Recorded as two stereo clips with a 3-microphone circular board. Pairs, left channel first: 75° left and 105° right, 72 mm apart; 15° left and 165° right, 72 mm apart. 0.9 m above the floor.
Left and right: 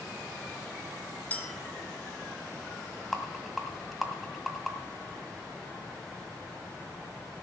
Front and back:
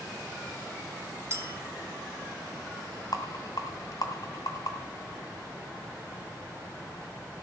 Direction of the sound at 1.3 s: 140° left.